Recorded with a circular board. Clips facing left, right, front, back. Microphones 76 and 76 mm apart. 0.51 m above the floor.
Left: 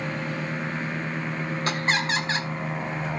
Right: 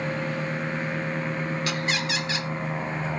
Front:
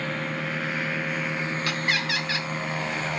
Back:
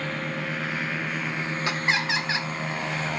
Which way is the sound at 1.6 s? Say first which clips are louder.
Left 2 dB, back 3 dB; 120° left.